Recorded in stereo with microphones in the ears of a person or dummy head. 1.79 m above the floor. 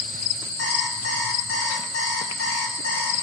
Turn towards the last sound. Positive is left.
turn(degrees=70)  # may be behind; listen again after turning